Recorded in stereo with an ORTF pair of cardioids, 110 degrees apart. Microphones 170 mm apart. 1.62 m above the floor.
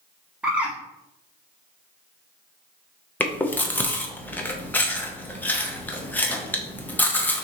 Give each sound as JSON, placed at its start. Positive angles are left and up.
{"t": 0.4, "sound": "a bird", "azimuth_deg": -10, "distance_m": 1.4}
{"t": 3.2, "sound": "chewing", "azimuth_deg": 10, "distance_m": 0.8}